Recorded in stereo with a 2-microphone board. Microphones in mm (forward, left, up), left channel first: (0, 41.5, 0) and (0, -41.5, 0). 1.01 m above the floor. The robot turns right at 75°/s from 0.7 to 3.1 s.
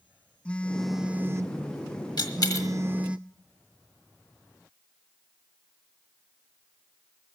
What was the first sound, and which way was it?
A phone buzzing, 165° left.